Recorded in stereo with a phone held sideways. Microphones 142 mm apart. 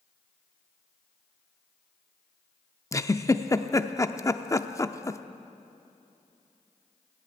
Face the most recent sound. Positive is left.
turn(degrees=25)  # may be behind; listen again after turning